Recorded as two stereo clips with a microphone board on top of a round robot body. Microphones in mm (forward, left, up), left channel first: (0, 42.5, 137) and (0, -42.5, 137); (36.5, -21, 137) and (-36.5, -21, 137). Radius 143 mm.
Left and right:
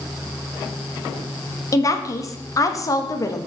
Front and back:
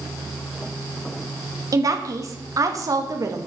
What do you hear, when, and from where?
1.7 s a woman speaking: 140° left, 1.5 m